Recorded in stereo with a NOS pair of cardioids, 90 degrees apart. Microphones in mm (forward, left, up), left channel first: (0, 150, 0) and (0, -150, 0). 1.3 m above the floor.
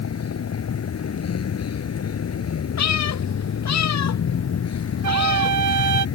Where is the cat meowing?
55° left.